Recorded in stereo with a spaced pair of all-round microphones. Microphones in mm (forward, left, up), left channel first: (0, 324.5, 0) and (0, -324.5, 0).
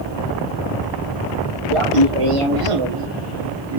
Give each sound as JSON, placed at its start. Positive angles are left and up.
{"t": 1.7, "sound": "laughter", "side_deg": -50, "distance_m": 1.3}